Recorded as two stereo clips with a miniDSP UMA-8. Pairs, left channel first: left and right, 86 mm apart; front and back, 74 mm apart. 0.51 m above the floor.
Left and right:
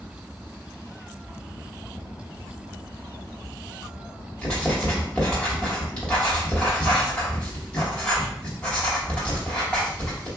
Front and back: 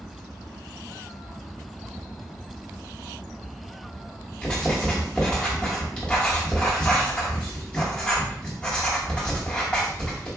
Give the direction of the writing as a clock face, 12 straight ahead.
10 o'clock.